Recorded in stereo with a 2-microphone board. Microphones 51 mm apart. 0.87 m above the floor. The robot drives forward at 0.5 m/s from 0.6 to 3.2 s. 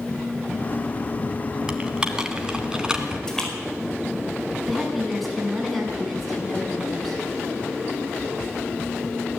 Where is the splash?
10° left (ahead or behind), 5 m.